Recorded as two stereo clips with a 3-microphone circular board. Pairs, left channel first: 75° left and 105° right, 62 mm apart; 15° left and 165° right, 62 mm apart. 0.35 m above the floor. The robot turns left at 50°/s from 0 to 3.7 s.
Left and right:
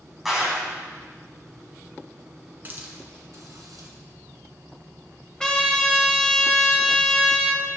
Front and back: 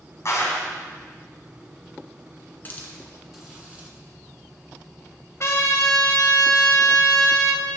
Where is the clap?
20° right, 2 m; by 0.7 s 40° right, 2 m.